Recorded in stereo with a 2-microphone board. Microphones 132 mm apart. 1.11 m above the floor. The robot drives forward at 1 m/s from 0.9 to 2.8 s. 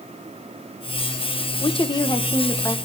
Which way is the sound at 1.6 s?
45° left (ahead or behind).